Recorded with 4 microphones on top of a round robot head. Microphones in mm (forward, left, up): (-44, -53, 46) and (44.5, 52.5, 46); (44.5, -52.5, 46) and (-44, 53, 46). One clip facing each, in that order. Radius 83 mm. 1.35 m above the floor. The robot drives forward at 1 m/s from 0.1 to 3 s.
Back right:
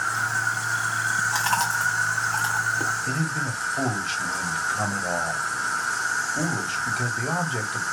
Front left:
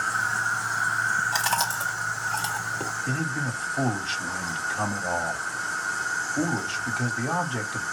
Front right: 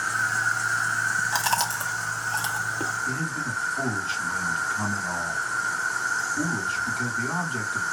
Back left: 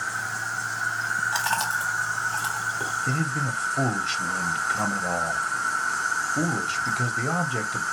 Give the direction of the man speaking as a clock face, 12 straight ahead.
7 o'clock.